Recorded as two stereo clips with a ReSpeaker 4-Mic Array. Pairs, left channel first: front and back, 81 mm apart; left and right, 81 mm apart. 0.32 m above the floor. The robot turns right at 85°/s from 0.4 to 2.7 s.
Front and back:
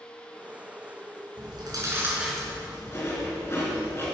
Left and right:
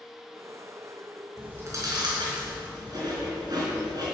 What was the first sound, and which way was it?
Chewing, 170° right.